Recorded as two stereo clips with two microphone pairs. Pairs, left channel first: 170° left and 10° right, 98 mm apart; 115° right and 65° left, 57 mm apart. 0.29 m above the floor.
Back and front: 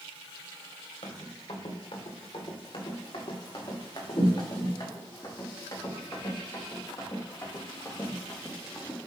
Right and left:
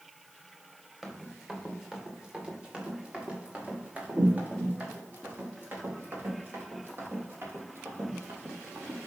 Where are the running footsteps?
150° left, 3.5 m; by 9.0 s 105° left, 6.5 m.